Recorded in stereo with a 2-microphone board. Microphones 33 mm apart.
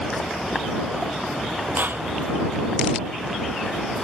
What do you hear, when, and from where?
1.8 s a clap: 75° right (ahead or behind)